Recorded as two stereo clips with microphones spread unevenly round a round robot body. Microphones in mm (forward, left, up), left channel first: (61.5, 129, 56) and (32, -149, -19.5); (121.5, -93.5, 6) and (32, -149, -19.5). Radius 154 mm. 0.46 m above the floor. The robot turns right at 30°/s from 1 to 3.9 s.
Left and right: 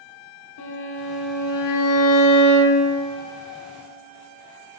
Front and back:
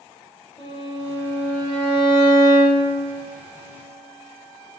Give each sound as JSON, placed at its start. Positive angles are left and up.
{"t": 0.6, "sound": "a violin", "azimuth_deg": 100, "distance_m": 1.4}